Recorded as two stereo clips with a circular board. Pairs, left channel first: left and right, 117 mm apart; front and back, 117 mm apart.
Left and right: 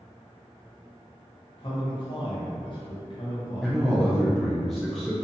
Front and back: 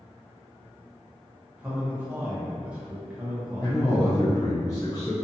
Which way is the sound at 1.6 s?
105° left.